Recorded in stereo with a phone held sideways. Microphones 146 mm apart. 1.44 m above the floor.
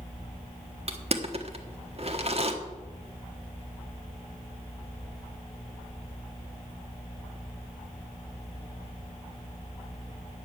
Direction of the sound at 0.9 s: 45° right (ahead or behind).